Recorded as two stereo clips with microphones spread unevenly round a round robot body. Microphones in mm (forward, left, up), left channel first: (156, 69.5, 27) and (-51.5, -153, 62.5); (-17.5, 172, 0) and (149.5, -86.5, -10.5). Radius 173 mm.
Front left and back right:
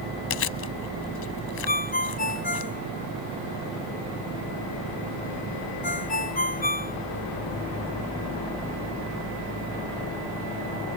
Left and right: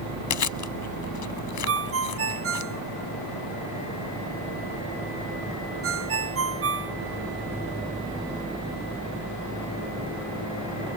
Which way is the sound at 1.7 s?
15° right.